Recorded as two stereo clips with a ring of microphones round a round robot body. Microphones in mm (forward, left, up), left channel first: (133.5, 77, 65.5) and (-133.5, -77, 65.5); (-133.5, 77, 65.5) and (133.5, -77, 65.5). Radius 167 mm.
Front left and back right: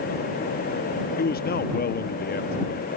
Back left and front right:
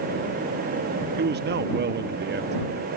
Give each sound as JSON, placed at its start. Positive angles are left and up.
{"t": 1.2, "sound": "a man speaking", "azimuth_deg": -5}